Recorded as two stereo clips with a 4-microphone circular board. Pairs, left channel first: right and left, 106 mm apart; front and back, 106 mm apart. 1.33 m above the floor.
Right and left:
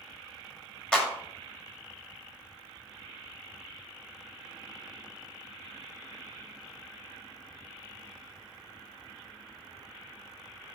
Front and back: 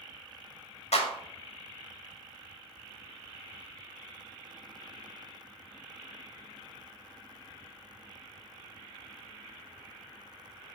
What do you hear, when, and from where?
0.9 s a clap: 5° right, 1.9 m